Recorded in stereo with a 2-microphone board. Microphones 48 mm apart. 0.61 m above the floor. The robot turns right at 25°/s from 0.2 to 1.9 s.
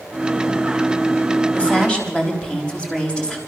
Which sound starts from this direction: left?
A woman speaking, at 1.5 s.